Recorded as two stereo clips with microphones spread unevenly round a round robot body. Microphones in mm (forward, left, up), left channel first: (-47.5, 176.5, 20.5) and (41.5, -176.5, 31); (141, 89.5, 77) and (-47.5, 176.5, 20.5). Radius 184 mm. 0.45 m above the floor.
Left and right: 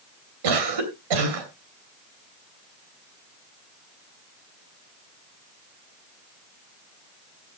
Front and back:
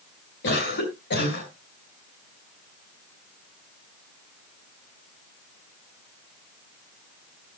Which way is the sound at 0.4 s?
75° right.